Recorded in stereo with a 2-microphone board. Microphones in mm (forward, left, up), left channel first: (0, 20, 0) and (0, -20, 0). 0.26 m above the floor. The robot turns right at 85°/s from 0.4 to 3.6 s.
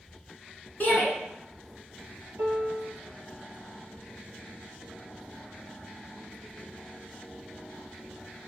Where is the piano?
95° right, 1.8 m; by 2.9 s 50° right, 1.8 m.